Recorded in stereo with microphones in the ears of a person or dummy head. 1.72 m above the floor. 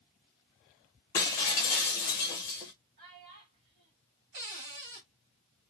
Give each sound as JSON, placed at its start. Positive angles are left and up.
{"t": 1.1, "sound": "breaking glass", "side_deg": 15, "distance_m": 0.9}
{"t": 3.0, "sound": "a child speaking", "side_deg": -50, "distance_m": 1.8}
{"t": 4.3, "sound": "a cupboard door", "side_deg": -55, "distance_m": 1.9}